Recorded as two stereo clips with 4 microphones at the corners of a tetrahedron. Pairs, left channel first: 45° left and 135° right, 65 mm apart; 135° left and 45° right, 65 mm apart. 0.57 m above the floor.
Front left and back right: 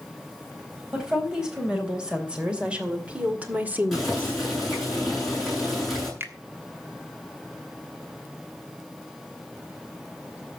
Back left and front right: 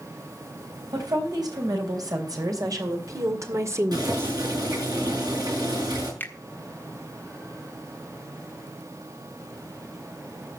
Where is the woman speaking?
55° right, 4 m; by 4.4 s 90° right, 1.3 m.